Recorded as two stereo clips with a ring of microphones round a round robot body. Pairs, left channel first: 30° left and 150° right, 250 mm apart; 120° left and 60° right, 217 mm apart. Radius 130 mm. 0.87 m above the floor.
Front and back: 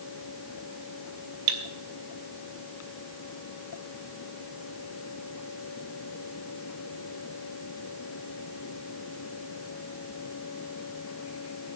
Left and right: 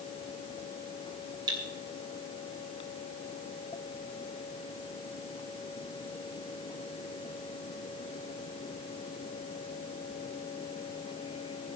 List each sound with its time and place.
1.5 s cutlery clinking: 135° right, 2 m